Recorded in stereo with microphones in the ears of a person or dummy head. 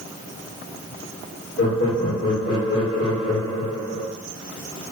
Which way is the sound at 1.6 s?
65° left (ahead or behind).